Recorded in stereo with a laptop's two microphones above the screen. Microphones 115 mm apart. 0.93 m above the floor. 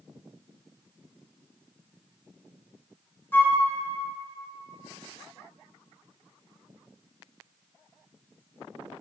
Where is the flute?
20° left (ahead or behind), 0.8 m.